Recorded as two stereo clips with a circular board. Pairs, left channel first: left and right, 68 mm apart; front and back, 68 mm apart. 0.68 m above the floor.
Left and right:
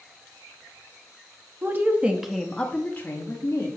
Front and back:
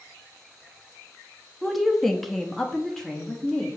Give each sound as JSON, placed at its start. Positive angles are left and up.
{"t": 1.6, "sound": "a woman speaking", "azimuth_deg": -95, "distance_m": 0.8}